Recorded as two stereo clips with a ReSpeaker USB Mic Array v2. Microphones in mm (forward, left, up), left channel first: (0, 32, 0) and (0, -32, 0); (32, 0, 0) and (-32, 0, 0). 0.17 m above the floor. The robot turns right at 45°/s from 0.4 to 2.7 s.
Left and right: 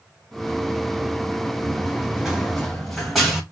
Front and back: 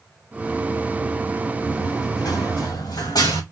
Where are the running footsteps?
20° right, 1.7 m; by 3.4 s 5° right, 3 m.